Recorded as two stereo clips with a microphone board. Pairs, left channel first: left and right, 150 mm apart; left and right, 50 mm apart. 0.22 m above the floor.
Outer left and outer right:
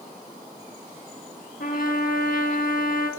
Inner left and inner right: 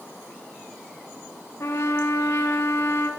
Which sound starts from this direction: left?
A trumpet, at 1.6 s.